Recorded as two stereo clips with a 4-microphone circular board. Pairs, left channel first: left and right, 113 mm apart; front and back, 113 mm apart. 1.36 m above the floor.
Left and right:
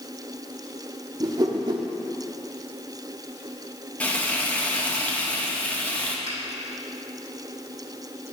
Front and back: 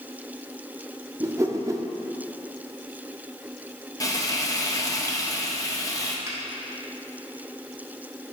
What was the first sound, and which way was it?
A whoosh, 130° right.